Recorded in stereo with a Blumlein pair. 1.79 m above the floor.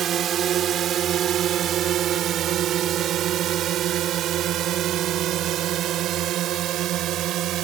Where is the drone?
25° right; by 7.6 s 35° right.